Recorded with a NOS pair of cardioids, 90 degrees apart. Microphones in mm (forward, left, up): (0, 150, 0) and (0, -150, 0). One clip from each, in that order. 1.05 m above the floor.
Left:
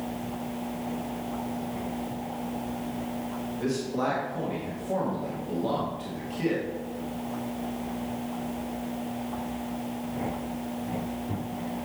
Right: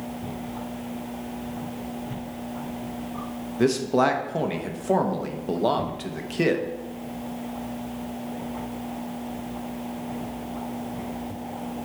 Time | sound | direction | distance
3.6 | a man speaking | 65° right | 1.1 m